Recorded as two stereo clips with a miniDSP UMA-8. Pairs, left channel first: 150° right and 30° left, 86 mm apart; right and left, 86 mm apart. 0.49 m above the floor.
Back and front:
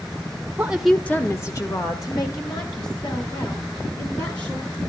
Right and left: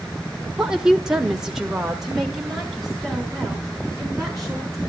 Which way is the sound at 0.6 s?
25° left.